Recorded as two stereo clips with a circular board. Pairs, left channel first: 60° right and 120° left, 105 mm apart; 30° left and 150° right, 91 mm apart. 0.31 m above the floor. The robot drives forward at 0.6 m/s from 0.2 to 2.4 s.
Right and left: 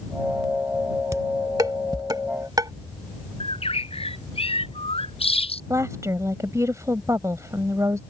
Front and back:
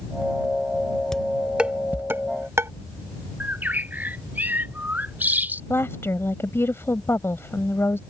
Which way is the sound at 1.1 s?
105° left.